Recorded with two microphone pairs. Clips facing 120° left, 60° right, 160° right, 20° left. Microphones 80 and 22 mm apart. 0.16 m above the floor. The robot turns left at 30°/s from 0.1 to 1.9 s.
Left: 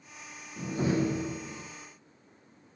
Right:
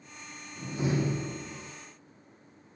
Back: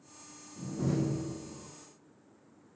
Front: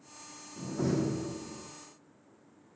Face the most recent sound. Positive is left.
turn(degrees=30)